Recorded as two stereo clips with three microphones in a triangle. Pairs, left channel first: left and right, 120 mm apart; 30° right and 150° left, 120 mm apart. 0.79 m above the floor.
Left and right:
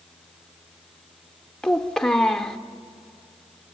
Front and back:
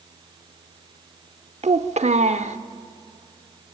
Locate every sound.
1.6 s a child speaking: 175° left, 1.0 m